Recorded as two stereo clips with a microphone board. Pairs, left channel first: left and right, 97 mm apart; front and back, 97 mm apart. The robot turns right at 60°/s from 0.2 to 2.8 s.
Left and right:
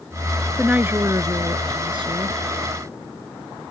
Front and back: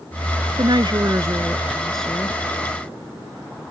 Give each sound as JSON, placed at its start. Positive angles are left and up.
{"t": 0.6, "sound": "a woman speaking", "azimuth_deg": -170}